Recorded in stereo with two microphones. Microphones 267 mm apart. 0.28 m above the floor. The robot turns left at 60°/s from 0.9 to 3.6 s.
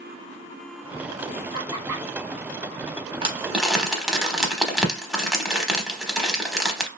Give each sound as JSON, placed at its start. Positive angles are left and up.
{"t": 1.5, "sound": "laughter", "side_deg": -15, "distance_m": 0.9}
{"t": 3.2, "sound": "crumpling", "side_deg": -20, "distance_m": 0.8}